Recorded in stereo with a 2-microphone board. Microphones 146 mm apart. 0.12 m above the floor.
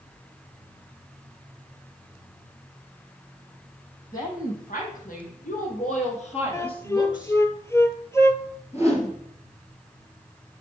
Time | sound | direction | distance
4.1 | a woman speaking | 75° left (ahead or behind) | 4.5 m
6.5 | a flute | 20° left (ahead or behind) | 0.5 m
8.7 | a whoosh | 45° left (ahead or behind) | 2.5 m